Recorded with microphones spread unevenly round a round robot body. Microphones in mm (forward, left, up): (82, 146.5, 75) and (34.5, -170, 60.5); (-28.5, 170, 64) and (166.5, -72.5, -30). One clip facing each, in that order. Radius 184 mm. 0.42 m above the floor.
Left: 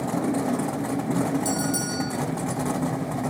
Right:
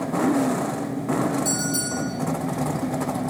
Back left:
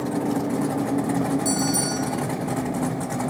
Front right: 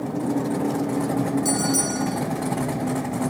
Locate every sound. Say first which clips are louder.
1.4 s a bell: even, even; 5° left, 9 m